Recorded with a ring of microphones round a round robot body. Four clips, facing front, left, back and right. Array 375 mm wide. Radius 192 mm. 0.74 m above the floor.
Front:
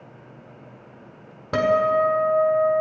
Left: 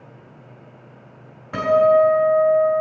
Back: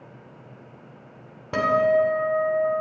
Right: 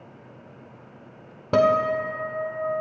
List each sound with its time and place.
1.5 s a guitar: 85° right, 1.9 m